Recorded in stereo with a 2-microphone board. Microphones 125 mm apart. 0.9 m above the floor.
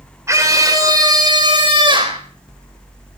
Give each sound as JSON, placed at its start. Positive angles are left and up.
{"t": 0.3, "sound": "a scream", "side_deg": -25, "distance_m": 3.0}